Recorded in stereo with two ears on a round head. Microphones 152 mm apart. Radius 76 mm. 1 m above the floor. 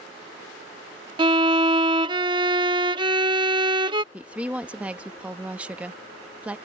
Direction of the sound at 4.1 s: 10° right (ahead or behind).